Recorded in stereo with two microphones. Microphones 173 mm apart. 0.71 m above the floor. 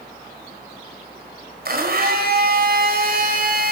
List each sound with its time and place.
1.6 s a blender: 60° right (ahead or behind), 3 m